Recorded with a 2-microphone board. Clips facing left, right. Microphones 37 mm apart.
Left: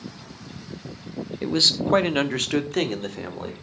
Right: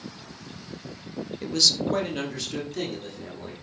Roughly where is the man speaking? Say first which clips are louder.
Left 3 dB; left.